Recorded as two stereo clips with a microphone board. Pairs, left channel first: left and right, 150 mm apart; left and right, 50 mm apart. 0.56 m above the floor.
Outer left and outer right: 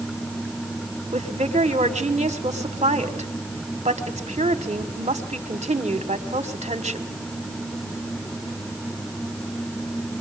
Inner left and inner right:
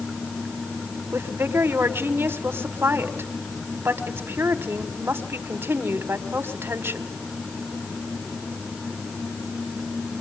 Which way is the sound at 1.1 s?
50° right (ahead or behind).